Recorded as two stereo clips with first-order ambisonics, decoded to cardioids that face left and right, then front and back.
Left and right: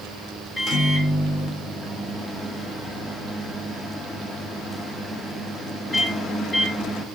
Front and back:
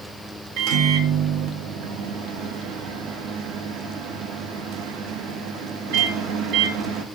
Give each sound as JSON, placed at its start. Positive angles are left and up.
{"t": 0.6, "sound": "a microwave", "azimuth_deg": 170, "distance_m": 0.5}